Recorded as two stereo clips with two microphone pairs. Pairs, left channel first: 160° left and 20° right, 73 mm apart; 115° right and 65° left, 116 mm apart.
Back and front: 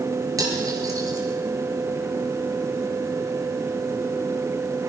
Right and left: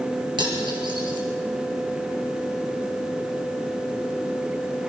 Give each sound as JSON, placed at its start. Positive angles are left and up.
{"t": 0.4, "sound": "cutlery clinking", "azimuth_deg": 20, "distance_m": 5.0}